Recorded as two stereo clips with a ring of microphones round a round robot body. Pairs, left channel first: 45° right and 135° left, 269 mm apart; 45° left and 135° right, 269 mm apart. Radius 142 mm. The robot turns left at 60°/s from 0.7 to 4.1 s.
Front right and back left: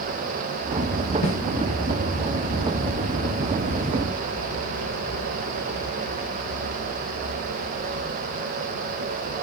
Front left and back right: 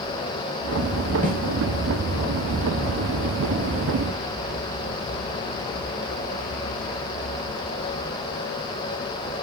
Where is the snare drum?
75° right, 5 m; by 1.4 s 85° right, 5 m.